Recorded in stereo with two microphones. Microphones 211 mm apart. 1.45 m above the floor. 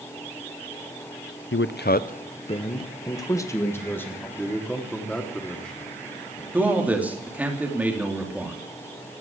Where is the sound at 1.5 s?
65° left (ahead or behind), 0.6 m; by 4.3 s 10° left (ahead or behind), 1.8 m.